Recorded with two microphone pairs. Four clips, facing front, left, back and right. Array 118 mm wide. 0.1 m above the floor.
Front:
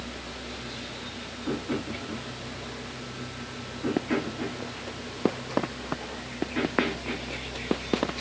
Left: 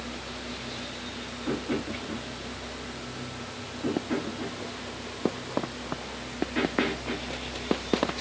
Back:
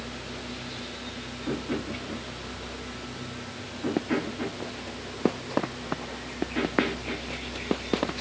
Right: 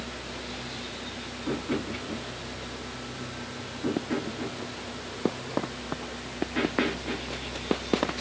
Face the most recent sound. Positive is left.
No sound to turn to.